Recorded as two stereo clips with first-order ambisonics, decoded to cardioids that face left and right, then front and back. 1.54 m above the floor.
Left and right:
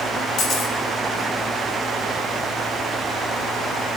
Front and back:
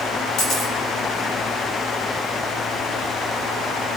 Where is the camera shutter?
40° left, 5 m.